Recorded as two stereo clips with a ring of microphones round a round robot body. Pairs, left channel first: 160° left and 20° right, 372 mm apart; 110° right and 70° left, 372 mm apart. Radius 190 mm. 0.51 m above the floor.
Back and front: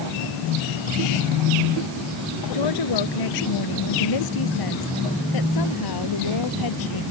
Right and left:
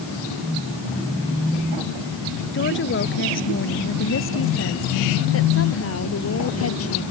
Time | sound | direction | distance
2.5 | a woman speaking | 175° right | ?